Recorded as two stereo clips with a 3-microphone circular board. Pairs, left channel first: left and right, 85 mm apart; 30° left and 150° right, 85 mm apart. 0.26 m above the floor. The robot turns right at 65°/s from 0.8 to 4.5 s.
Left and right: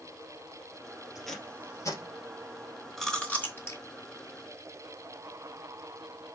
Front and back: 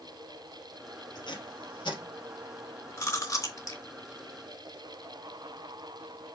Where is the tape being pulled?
5° right, 2.5 m; by 2.0 s 55° left, 2.5 m.